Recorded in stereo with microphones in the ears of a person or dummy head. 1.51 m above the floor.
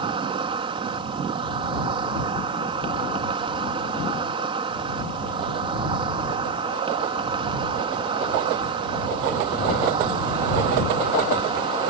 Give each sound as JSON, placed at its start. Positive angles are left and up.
{"t": 0.0, "sound": "an insect", "side_deg": -30}